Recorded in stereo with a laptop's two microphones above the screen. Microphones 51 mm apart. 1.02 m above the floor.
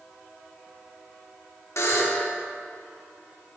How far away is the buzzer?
About 1.3 m.